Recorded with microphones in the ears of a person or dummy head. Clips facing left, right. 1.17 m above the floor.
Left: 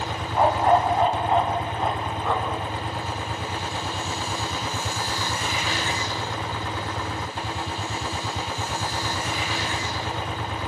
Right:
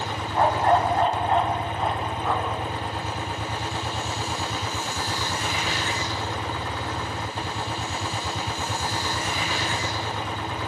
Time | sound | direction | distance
0.3 | a dog barking | 10° left (ahead or behind) | 3.5 m